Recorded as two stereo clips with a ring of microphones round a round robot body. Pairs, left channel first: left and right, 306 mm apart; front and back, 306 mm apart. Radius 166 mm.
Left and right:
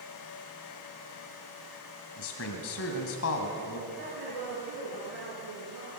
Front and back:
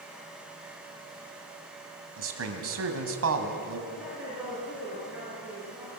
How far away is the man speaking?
About 2.5 m.